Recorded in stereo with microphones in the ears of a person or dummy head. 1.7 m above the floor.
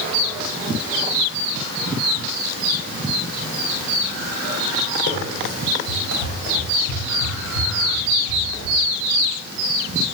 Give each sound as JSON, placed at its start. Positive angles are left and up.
{"t": 5.1, "sound": "running footsteps", "side_deg": 60, "distance_m": 3.5}